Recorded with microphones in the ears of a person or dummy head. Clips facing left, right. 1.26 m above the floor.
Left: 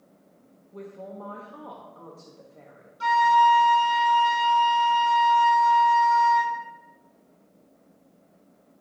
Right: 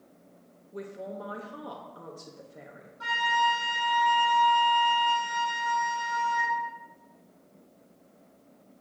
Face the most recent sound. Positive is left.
turn(degrees=45)  # may be behind; listen again after turning